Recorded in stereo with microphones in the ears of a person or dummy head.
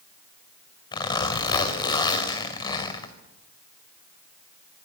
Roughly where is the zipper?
Centre.